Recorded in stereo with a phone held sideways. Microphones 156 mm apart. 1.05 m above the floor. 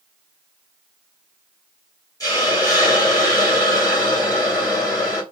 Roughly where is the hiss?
Left.